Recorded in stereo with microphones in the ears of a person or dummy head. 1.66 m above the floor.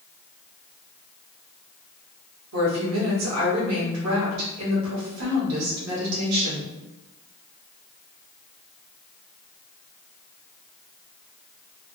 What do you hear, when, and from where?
2.5 s a woman speaking: 80° right, 1.4 m